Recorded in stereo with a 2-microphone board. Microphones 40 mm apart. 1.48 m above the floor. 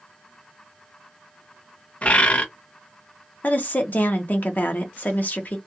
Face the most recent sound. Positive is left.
turn(degrees=45)  # may be behind; listen again after turning